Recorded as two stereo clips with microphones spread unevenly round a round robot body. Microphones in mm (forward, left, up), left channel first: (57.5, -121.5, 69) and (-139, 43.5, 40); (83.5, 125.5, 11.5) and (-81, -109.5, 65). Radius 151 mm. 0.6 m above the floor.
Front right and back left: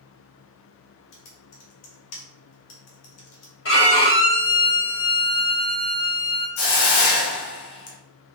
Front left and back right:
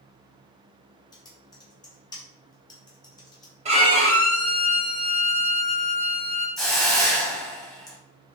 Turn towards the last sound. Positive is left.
turn(degrees=-40)